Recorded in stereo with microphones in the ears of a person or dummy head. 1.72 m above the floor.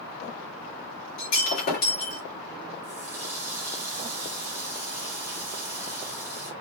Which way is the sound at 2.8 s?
10° right (ahead or behind).